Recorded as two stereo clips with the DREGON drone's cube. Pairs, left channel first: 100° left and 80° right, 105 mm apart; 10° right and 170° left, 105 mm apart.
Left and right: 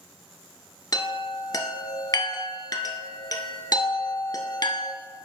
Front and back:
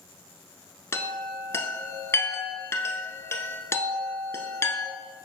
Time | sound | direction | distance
0.9 | a chime | 50° left | 0.7 m